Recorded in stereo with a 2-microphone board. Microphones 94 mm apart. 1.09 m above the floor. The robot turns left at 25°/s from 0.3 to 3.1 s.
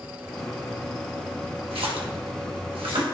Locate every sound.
1.7 s a splash: 80° right, 1.3 m; by 3.0 s 65° right (ahead or behind), 1.3 m